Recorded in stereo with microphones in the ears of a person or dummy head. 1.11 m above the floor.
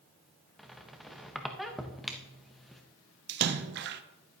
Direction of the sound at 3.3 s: 60° right (ahead or behind).